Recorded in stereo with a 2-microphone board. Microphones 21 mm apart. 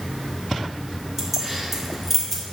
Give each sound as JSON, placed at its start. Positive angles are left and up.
{"t": 1.2, "sound": "keys jangling", "side_deg": -10, "distance_m": 2.5}